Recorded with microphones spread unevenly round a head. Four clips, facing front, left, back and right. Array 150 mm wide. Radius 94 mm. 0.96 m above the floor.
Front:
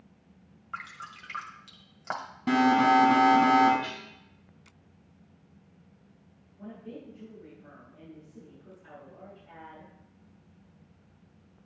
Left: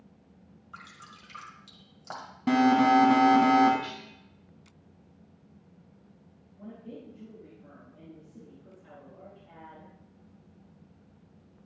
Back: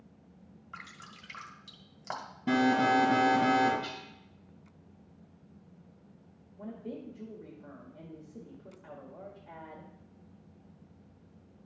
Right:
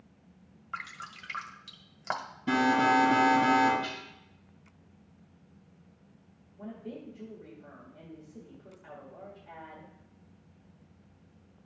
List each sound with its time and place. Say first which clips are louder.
0.7 s dripping: right 7 dB, front 8 dB; 50° right, 1.3 m
2.5 s an alarm: left 4 dB, front 4 dB; 100° left, 2.5 m
3.8 s dishes clattering: right 1 dB, front 3 dB; 140° left, 3.5 m
6.6 s a woman speaking: right 2 dB, back 2 dB; 175° right, 1.8 m